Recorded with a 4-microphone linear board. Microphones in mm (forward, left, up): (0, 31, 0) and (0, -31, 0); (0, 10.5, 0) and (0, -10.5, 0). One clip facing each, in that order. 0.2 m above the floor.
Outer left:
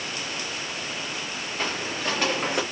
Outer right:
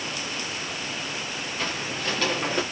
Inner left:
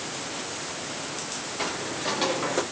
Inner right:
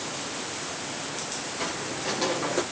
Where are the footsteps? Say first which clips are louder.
Outer left 2 dB, inner left 3 dB; 25° left (ahead or behind), 2 m; by 2.6 s 5° left (ahead or behind), 1.0 m.